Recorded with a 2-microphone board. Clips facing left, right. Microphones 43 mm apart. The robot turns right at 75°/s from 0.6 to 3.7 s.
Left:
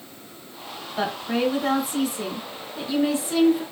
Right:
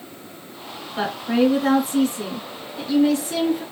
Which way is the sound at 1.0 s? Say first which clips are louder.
Right 4 dB; 20° right (ahead or behind).